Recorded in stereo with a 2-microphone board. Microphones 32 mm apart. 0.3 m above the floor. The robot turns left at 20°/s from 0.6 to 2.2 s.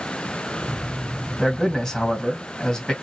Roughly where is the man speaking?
Centre.